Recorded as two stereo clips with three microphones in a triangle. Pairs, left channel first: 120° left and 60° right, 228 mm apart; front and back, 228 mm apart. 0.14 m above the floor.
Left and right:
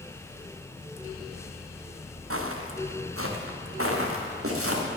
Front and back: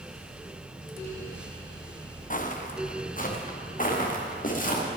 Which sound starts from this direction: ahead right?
Footsteps, at 2.3 s.